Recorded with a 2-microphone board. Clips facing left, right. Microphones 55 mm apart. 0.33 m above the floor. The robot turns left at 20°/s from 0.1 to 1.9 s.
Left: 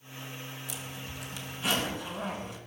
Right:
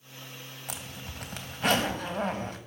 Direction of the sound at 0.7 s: 60° right (ahead or behind).